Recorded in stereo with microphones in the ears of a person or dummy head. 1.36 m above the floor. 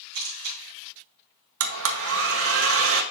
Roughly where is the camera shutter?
Right.